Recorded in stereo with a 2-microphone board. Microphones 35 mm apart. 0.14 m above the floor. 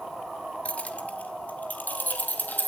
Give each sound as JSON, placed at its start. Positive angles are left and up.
{"t": 0.7, "sound": "keys jangling", "side_deg": 35, "distance_m": 1.4}